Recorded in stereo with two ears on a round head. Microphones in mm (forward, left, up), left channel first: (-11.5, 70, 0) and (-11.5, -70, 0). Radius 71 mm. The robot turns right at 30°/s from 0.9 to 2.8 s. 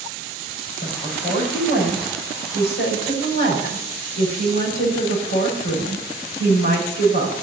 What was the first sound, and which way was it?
A woman speaking, 50° left.